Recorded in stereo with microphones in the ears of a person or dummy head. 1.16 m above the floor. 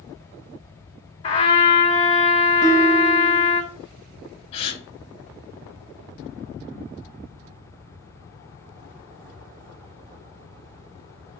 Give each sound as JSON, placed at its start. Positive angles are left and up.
{"t": 1.2, "sound": "a trumpet", "side_deg": 30, "distance_m": 1.0}
{"t": 2.6, "sound": "a guitar", "side_deg": -25, "distance_m": 1.1}
{"t": 4.5, "sound": "a gasp", "side_deg": 35, "distance_m": 1.0}